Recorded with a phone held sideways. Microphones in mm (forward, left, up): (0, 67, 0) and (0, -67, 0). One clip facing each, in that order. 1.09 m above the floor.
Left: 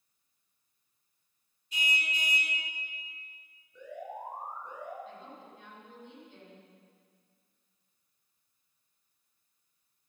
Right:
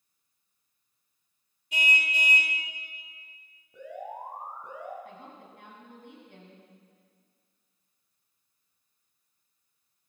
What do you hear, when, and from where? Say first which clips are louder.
1.7 s a car horn: right 5 dB; 80° right, 2.5 m
3.7 s an alarm: right 2 dB; 75° right (ahead or behind), 6.5 m
5.0 s a woman speaking: even; 65° right (ahead or behind), 8.5 m